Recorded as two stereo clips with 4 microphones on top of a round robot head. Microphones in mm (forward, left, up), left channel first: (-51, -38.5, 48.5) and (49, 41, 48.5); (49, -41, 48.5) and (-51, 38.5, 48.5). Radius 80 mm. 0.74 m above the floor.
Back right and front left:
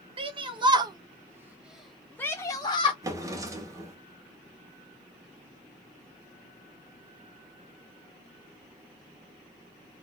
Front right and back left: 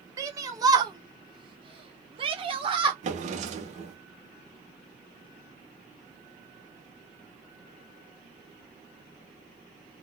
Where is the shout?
80° left, 1.2 m; by 2.9 s 175° right, 0.9 m.